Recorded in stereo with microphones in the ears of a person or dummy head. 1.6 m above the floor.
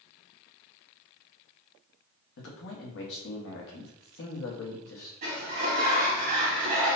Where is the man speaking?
70° left (ahead or behind), 0.9 m.